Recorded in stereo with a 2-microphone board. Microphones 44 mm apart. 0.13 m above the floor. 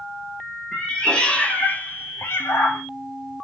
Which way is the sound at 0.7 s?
10° left (ahead or behind).